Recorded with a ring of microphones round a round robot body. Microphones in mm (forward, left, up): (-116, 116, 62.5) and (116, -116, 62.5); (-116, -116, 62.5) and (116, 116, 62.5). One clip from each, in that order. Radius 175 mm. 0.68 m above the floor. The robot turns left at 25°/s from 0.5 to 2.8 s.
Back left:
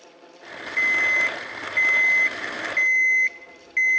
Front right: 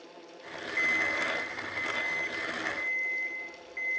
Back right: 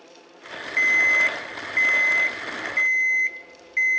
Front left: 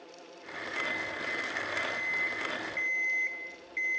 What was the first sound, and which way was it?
An alarm clock, 150° right.